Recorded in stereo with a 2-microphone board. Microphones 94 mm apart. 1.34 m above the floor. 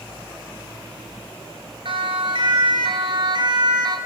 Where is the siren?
60° right (ahead or behind), 6 m; by 4.0 s 45° right (ahead or behind), 5.5 m.